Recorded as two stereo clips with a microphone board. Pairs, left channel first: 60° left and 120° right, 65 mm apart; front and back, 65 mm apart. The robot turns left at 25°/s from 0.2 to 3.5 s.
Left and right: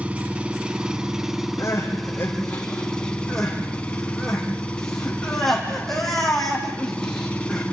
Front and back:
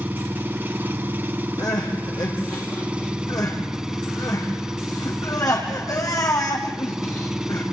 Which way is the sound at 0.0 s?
165° right.